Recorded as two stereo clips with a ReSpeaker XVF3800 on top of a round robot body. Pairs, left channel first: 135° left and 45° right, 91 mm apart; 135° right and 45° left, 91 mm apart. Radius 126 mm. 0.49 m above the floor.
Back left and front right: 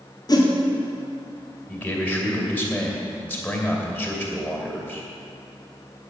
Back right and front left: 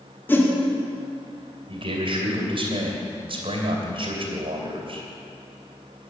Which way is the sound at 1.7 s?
65° left.